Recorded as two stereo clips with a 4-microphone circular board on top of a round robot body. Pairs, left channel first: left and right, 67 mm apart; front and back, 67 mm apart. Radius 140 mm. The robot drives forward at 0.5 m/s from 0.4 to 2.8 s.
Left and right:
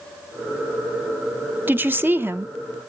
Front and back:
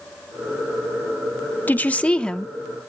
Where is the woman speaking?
50° right, 1.2 m; by 2.5 s 80° right, 1.1 m.